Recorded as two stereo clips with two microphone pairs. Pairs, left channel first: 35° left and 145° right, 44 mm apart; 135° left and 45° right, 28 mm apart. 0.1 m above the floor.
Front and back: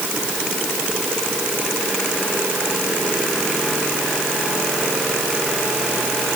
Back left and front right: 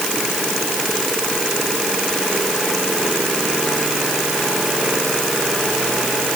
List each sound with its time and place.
Only background noise.